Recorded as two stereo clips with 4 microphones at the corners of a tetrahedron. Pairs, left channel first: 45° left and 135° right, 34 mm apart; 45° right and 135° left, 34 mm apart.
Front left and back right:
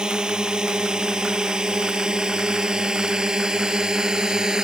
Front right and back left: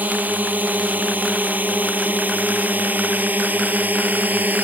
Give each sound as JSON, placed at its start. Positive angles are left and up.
{"t": 0.0, "sound": "a drone", "azimuth_deg": 165}